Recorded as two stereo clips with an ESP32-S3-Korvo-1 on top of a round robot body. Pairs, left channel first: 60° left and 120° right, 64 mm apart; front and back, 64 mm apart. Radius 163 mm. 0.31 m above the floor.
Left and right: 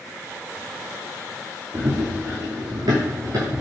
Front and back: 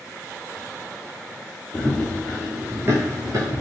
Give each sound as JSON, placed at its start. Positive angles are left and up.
{"t": 1.7, "sound": "running footsteps", "azimuth_deg": -75, "distance_m": 0.8}